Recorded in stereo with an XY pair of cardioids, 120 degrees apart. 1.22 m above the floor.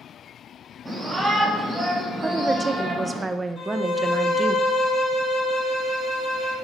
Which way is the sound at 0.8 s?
5° right.